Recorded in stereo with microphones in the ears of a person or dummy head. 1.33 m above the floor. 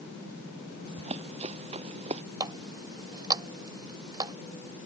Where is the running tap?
30° right (ahead or behind).